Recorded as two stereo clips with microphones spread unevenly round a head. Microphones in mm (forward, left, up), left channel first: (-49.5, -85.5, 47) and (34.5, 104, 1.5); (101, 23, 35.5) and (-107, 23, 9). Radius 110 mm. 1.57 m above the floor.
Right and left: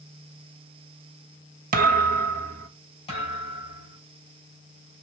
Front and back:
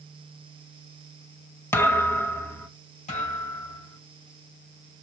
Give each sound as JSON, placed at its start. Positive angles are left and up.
{"t": 1.7, "sound": "a thud", "azimuth_deg": 45, "distance_m": 0.9}
{"t": 3.1, "sound": "a thud", "azimuth_deg": -55, "distance_m": 3.5}